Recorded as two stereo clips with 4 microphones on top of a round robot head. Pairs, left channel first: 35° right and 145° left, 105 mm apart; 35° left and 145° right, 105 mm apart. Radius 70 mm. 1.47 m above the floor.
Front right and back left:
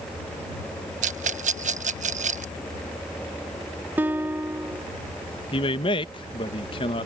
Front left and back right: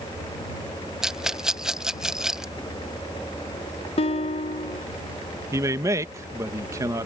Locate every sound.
1.0 s a rattle: 130° left
4.0 s a guitar: 70° left
5.5 s a man speaking: 80° right